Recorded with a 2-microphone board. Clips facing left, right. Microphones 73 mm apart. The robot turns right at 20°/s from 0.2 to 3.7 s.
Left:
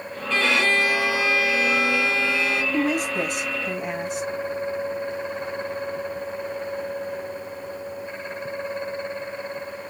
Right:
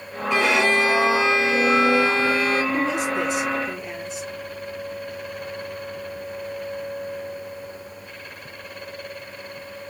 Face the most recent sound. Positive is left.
turn(degrees=60)  # may be behind; listen again after turning